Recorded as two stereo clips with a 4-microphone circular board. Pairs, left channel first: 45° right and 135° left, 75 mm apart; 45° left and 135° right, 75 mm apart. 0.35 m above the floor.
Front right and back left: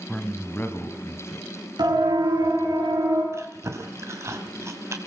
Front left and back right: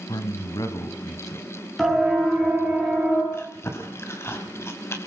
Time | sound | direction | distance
0.1 | a man speaking | 35° left | 2.0 m
1.8 | a siren | 130° left | 5 m
3.3 | chewing | 90° left | 3 m